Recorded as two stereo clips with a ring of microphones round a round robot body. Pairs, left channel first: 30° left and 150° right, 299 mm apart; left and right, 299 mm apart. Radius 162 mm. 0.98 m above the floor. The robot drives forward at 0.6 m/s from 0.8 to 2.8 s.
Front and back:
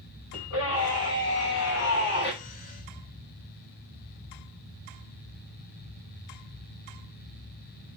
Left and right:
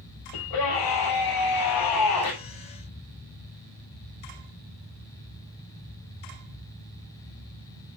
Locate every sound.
0.3 s a scream: 75° left, 6.5 m; by 2.3 s 85° left, 6.5 m